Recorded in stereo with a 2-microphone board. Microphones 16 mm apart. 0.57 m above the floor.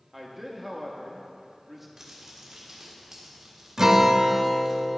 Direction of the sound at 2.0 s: 35° right (ahead or behind).